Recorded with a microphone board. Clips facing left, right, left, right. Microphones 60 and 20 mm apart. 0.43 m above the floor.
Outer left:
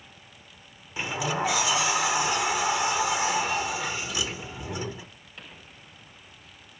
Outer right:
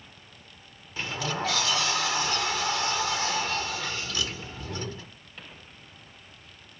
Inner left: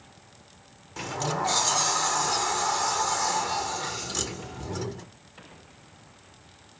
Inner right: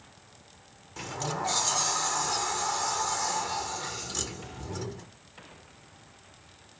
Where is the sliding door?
15° left (ahead or behind), 0.8 m.